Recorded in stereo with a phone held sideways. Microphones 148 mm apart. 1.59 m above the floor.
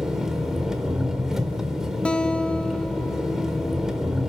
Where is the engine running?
5° right (ahead or behind), 1.5 m.